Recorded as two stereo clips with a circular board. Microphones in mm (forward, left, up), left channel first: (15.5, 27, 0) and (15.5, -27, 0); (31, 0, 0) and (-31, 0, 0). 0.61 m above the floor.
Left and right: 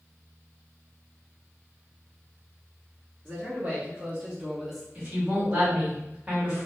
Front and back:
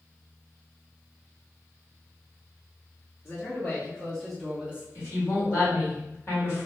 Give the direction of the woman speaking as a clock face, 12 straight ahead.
1 o'clock.